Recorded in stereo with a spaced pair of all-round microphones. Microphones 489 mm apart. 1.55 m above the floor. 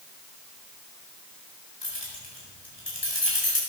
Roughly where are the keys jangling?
Left.